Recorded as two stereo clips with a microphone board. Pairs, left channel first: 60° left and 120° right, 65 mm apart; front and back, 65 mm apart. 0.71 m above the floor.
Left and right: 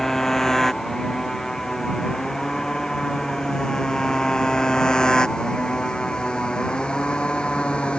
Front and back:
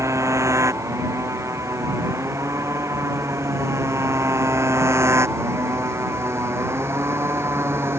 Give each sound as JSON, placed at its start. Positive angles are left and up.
{"t": 0.0, "sound": "a motorcycle", "azimuth_deg": 140}